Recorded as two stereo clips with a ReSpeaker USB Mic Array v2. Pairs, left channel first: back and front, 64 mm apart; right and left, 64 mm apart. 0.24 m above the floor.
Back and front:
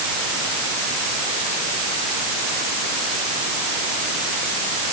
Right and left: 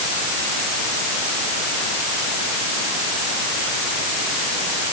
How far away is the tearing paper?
I don't hear tearing paper.